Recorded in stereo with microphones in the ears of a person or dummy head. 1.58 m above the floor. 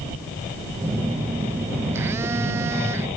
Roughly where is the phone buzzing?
Centre.